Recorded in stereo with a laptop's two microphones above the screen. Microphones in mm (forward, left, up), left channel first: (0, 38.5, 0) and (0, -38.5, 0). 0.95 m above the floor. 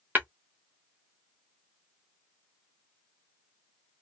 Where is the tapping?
25° right (ahead or behind), 0.6 m.